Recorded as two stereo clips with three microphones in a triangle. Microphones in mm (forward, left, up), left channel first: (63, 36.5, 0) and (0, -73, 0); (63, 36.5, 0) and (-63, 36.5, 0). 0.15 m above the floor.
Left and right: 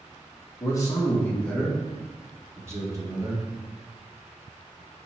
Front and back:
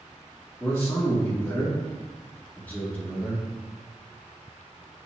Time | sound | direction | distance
0.6 | a man speaking | 50° left | 1.3 m